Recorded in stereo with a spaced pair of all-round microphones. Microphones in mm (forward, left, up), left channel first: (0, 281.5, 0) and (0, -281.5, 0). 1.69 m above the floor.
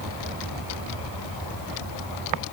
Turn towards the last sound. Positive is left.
No sound to turn to.